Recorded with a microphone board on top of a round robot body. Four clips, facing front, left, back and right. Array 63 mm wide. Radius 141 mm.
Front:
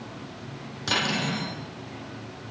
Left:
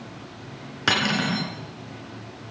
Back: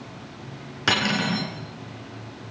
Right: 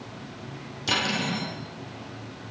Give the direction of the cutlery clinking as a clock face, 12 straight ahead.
8 o'clock.